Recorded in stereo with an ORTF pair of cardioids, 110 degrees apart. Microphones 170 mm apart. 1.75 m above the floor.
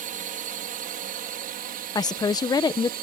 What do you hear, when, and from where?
0.0 s a drone: 55° right; by 3.0 s 65° right
1.9 s a woman speaking: 25° left